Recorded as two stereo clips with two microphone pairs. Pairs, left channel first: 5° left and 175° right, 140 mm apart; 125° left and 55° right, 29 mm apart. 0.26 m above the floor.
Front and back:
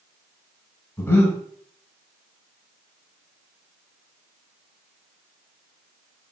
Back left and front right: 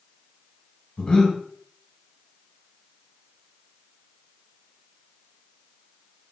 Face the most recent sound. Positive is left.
turn(degrees=75)